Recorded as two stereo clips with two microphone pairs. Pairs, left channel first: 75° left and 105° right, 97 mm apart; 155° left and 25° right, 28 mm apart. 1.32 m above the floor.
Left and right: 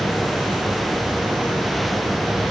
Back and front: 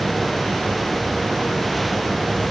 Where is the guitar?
No guitar in this recording.